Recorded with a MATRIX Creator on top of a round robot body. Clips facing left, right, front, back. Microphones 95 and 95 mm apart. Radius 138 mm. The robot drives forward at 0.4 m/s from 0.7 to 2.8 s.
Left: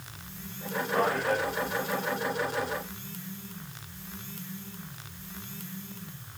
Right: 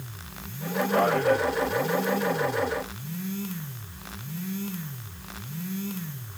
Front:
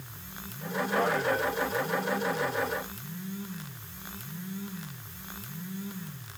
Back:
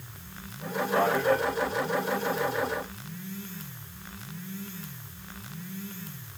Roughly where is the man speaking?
Behind right.